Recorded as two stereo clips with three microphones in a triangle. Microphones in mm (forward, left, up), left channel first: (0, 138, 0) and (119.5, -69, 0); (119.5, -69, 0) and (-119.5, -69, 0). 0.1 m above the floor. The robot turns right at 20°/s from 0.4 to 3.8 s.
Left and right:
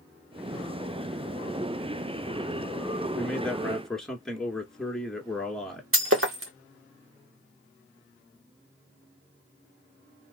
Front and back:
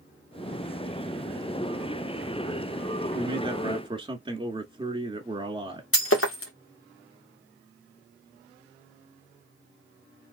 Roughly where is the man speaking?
Behind.